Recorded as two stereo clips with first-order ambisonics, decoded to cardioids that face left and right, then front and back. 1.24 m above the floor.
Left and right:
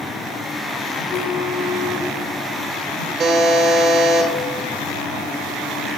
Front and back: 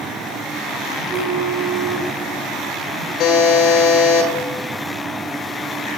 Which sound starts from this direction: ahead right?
A buzzer, at 3.2 s.